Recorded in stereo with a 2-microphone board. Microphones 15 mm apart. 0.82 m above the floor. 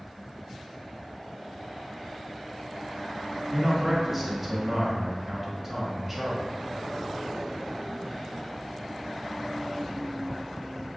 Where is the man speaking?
5° right (ahead or behind), 1.0 m.